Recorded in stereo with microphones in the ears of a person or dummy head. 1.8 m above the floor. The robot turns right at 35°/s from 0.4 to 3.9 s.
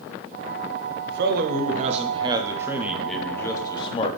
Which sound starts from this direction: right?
A man speaking, at 1.1 s.